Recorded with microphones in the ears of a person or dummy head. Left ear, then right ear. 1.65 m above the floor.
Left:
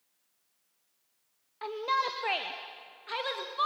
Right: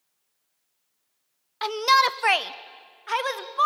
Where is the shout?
60° right (ahead or behind), 0.7 m; by 3.7 s 30° right (ahead or behind), 1.4 m.